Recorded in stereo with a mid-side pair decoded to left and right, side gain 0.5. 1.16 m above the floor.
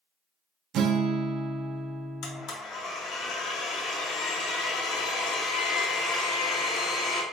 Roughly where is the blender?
Ahead left.